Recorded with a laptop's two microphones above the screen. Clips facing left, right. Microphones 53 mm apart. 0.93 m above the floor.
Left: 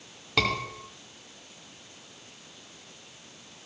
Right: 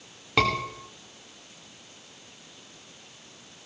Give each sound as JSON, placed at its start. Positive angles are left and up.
{"t": 0.4, "sound": "a scream", "side_deg": -20, "distance_m": 2.0}